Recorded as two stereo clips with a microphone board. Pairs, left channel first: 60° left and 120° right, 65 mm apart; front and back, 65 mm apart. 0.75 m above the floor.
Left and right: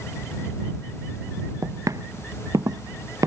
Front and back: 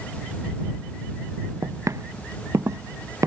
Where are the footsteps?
145° right.